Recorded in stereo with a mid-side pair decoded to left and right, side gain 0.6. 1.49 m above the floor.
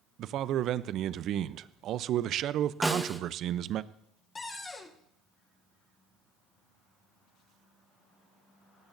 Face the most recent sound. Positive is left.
turn(degrees=25)